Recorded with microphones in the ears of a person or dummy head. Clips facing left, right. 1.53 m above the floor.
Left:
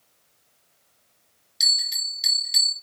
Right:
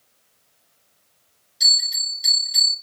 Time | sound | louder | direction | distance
1.6 | a bell | right 3 dB | 30° left (ahead or behind) | 1.7 m